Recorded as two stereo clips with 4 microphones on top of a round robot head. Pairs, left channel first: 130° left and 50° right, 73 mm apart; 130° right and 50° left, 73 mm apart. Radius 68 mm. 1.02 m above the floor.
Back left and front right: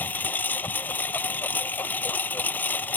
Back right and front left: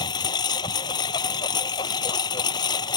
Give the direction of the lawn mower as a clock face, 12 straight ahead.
5 o'clock.